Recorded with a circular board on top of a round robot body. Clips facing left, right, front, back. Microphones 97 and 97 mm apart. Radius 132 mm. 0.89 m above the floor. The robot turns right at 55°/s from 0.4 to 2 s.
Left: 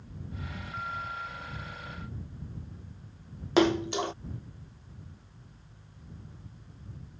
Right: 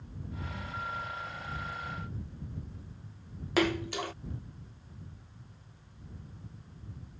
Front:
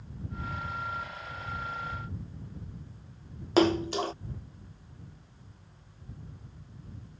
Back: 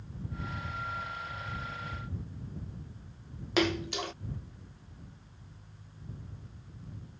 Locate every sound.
3.6 s a splash: 35° left